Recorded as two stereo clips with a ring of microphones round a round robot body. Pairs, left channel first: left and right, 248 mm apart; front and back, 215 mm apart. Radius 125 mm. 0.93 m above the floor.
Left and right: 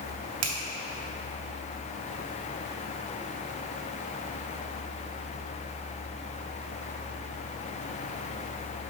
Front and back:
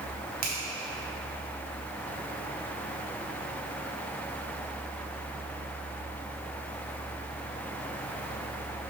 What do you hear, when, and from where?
0.4 s a finger snap: 120° right, 1.3 m